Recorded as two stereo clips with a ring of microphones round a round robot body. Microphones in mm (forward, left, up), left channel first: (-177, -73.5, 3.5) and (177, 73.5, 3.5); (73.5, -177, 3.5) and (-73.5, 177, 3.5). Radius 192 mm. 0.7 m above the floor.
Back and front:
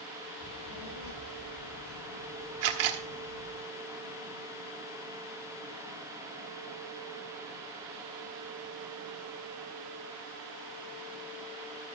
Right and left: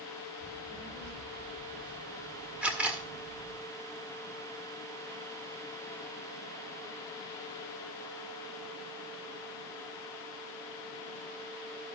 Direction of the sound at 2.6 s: 25° left.